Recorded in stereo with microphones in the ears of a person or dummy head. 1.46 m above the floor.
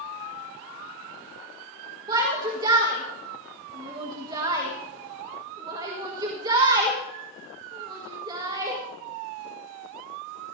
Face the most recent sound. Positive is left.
turn(degrees=-25)  # may be behind; listen again after turning